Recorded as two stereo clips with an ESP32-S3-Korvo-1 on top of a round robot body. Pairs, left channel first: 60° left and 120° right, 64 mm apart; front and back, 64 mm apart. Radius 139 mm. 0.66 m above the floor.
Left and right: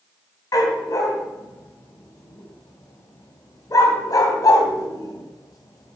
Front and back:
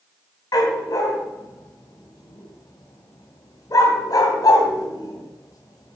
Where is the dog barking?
30° left, 2.5 m.